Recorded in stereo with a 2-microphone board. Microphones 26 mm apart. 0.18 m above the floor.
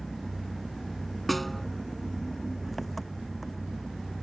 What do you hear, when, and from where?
0.0 s an engine running: 5° left (ahead or behind)
1.3 s a snare drum: 5° left (ahead or behind)